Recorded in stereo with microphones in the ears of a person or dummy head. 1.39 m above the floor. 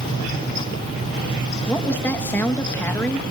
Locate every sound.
1.7 s a woman speaking: 10° left (ahead or behind), 1.8 m